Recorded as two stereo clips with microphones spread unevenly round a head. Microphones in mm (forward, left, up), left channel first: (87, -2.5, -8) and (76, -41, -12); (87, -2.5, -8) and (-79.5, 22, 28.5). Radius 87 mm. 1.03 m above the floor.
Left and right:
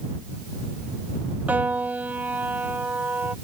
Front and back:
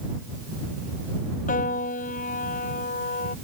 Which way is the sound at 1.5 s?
60° right.